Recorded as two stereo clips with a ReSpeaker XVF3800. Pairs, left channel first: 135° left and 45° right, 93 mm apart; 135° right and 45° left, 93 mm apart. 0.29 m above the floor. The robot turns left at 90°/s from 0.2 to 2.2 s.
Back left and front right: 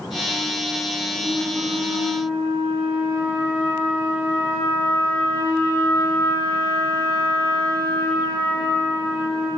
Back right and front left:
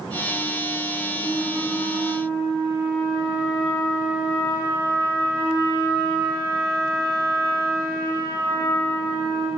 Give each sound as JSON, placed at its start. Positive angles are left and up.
{"t": 1.1, "sound": "a flute", "azimuth_deg": -80, "distance_m": 1.4}